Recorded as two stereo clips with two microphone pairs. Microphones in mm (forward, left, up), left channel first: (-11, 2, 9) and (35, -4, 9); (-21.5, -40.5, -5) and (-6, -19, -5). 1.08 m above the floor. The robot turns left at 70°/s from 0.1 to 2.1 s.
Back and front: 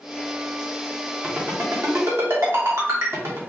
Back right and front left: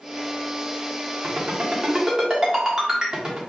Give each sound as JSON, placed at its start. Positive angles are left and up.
{"t": 1.2, "sound": "a ringtone", "azimuth_deg": 55, "distance_m": 1.4}